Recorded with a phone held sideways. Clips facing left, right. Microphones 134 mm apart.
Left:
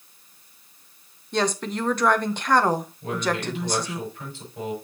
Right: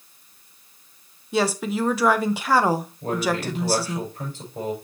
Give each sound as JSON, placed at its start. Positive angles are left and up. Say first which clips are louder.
{"t": 1.3, "sound": "a woman speaking", "louder": "right 2 dB", "side_deg": -5, "distance_m": 0.8}
{"t": 3.0, "sound": "a man speaking", "louder": "right 3 dB", "side_deg": -45, "distance_m": 5.0}